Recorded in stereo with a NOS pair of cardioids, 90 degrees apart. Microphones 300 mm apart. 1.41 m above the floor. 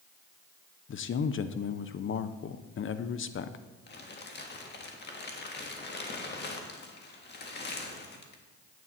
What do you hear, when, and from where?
0.9 s a man speaking: 45° left, 0.8 m
3.9 s crumpling: 35° left, 1.7 m